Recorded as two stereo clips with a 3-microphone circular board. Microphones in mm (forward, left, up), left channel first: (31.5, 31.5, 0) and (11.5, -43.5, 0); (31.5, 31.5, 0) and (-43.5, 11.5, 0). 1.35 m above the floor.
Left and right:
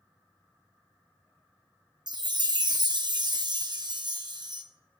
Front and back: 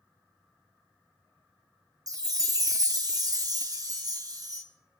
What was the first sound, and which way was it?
A chime, 130° right.